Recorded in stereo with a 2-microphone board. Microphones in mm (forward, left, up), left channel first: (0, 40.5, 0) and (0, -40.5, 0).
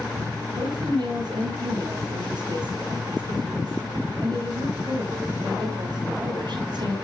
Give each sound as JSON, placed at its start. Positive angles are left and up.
{"t": 0.5, "sound": "a woman speaking", "side_deg": -60, "distance_m": 9.0}